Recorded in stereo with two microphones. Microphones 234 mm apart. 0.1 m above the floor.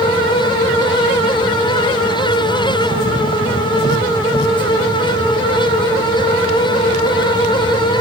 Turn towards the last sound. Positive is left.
No sound to turn to.